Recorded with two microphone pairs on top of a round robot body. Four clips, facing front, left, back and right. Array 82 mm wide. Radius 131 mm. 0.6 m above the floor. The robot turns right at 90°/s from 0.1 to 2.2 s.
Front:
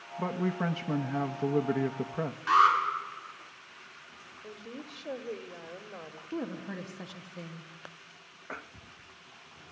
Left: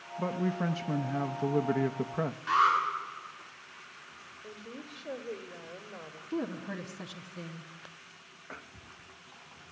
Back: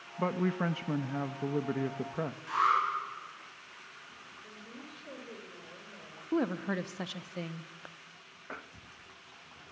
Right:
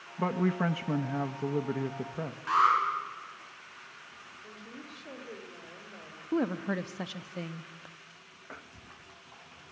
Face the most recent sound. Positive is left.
turn(degrees=-135)